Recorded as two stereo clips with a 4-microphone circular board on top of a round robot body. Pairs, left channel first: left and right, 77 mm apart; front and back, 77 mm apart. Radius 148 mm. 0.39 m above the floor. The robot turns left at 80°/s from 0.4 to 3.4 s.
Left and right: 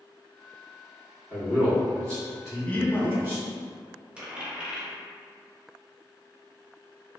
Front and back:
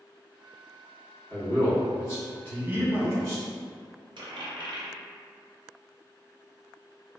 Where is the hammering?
No hammering in this recording.